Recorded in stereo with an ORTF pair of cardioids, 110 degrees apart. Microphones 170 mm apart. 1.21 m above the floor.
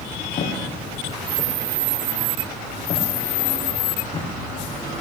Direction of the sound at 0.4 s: 35° left.